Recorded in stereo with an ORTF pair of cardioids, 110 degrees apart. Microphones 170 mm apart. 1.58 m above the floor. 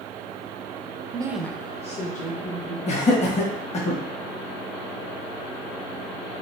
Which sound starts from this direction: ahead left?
Laughter, at 2.9 s.